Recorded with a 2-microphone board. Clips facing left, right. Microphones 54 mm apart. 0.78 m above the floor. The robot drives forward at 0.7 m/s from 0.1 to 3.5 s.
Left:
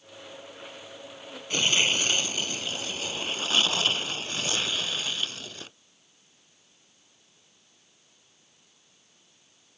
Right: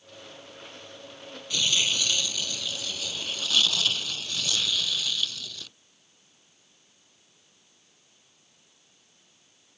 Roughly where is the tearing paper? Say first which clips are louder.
Left 3 dB; left.